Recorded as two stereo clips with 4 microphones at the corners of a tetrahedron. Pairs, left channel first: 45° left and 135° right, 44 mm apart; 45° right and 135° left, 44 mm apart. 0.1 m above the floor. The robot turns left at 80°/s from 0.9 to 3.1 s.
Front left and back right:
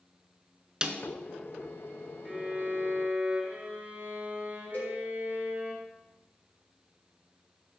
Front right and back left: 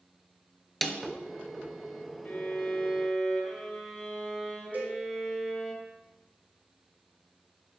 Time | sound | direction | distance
0.8 | a snare drum | 130° right | 0.9 m
2.2 | a violin | 50° right | 2 m
4.7 | a cowbell | 90° left | 4.5 m